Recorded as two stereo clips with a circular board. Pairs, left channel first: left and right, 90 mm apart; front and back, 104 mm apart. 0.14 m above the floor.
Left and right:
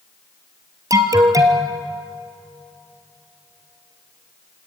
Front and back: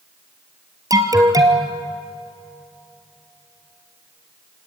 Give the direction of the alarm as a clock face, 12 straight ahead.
4 o'clock.